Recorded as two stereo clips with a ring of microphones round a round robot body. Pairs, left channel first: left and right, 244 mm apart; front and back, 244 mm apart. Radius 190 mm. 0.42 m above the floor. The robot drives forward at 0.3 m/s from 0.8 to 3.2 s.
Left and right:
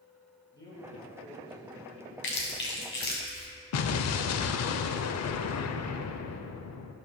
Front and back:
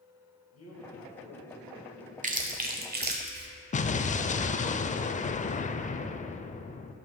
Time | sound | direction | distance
0.5 | a man speaking | 15° left | 2.5 m
2.2 | chewing | 125° left | 1.3 m
3.7 | an explosion | 65° left | 0.5 m